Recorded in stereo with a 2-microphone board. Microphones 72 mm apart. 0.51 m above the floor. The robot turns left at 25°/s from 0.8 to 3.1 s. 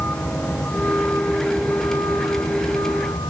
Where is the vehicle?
155° left; by 3.3 s 100° left.